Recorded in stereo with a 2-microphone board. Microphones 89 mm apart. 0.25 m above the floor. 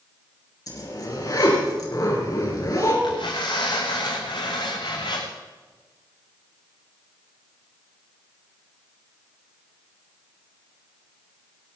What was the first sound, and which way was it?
A zipper, 50° left (ahead or behind).